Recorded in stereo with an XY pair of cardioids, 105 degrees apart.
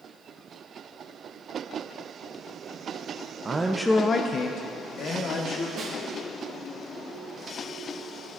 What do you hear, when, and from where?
3.5 s a man speaking: 30° right, 0.6 m; by 5.7 s 75° left, 2 m
5.8 s a snare drum: 55° right, 3 m